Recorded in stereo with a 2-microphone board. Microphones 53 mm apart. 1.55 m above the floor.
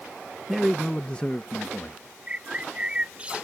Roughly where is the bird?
Right.